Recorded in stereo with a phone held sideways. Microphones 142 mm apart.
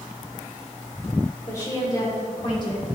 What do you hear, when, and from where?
1.5 s a woman speaking: 20° left (ahead or behind), 3 m; by 3.0 s 40° left (ahead or behind), 2.5 m